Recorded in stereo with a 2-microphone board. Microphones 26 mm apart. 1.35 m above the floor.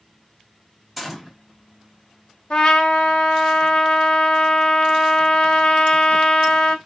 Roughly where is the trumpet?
Left.